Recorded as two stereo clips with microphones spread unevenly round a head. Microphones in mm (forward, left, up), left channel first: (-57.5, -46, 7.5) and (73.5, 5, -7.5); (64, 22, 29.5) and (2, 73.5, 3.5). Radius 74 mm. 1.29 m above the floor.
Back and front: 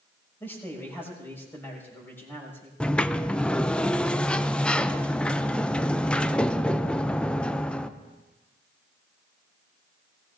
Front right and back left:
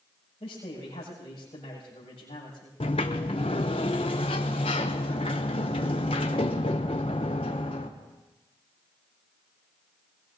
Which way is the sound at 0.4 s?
85° right.